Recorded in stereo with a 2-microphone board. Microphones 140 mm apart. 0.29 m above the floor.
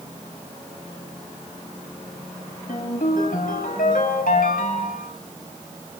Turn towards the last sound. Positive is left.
turn(degrees=80)